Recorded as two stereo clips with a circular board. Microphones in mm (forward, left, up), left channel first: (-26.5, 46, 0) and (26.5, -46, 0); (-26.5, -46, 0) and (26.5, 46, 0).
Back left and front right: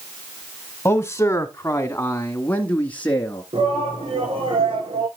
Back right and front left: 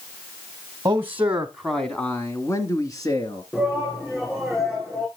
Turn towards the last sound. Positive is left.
turn(degrees=-35)